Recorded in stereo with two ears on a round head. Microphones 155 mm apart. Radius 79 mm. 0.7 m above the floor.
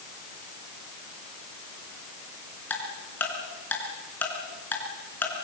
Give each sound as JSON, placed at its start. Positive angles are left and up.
{"t": 2.7, "sound": "ticking", "side_deg": 10, "distance_m": 3.5}